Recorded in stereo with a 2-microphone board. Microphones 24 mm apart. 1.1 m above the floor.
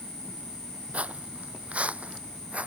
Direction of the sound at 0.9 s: 65° right (ahead or behind).